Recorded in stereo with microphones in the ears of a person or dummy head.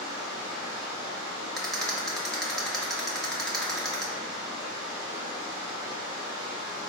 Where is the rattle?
5° left (ahead or behind), 0.6 m.